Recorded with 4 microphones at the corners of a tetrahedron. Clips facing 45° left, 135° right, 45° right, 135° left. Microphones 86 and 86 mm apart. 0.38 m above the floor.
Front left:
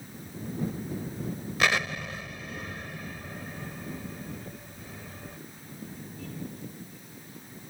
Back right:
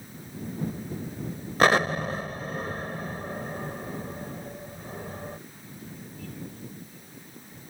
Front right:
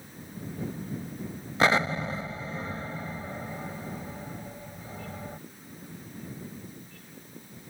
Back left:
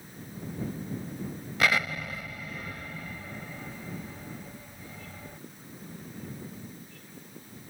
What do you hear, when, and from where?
1.6 s an explosion: 95° right